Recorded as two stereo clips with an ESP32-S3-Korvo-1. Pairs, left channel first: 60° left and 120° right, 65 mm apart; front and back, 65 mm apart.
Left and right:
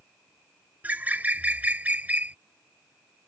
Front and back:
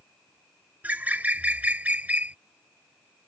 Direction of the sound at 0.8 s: 150° right.